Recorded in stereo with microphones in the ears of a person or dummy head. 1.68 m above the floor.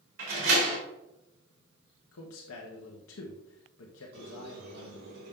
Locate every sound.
0.2 s a door slam: 75° right (ahead or behind), 3 m
2.1 s a man speaking: 75° left (ahead or behind), 1.3 m
4.1 s a squeak: 75° right (ahead or behind), 3 m